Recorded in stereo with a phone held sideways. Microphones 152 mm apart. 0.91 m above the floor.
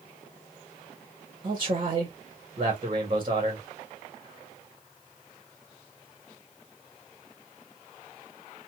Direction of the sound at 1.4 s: 35° right (ahead or behind).